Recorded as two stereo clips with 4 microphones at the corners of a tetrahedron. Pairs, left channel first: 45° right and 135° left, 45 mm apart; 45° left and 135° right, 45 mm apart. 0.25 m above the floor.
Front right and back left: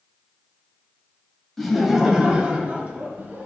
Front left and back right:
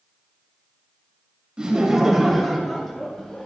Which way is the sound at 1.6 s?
115° right.